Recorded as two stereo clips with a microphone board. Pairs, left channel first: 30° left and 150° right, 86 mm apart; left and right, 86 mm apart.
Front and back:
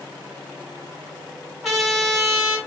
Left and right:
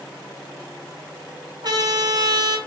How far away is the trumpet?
About 1.2 m.